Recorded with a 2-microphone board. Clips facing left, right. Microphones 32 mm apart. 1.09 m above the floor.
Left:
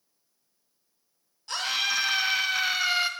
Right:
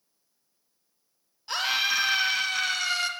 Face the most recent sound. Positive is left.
turn(degrees=20)  # may be behind; listen again after turning